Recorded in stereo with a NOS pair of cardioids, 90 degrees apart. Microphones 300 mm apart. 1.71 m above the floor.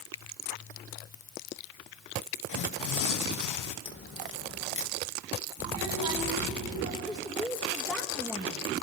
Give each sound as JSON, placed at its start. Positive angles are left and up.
{"t": 2.5, "sound": "tearing paper", "azimuth_deg": 70, "distance_m": 1.4}
{"t": 3.9, "sound": "a crack", "azimuth_deg": 40, "distance_m": 2.5}
{"t": 5.6, "sound": "a child speaking", "azimuth_deg": -25, "distance_m": 7.5}
{"t": 7.0, "sound": "a woman speaking", "azimuth_deg": 0, "distance_m": 1.9}